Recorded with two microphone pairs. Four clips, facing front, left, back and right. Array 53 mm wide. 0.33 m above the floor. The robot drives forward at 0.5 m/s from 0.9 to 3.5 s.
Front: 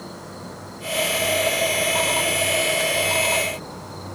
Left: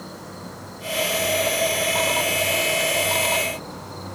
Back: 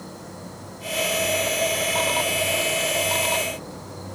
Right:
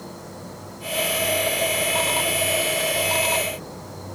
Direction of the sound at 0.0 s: 45° left.